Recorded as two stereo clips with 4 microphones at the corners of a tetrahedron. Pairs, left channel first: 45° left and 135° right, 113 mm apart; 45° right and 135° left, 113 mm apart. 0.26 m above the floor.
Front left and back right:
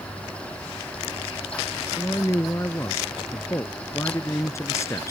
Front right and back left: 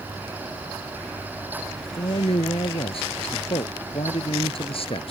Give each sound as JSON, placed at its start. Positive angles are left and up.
{"t": 1.8, "sound": "a man speaking", "azimuth_deg": -15}